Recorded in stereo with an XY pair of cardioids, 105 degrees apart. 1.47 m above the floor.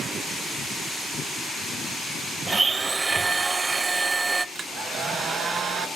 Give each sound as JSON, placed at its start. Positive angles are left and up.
{"t": 2.5, "sound": "a blender", "azimuth_deg": -25, "distance_m": 0.6}
{"t": 4.5, "sound": "a hair dryer", "azimuth_deg": -50, "distance_m": 1.3}